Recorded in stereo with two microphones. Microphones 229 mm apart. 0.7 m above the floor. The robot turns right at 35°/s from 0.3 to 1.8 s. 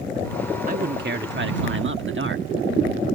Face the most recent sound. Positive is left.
turn(degrees=-95)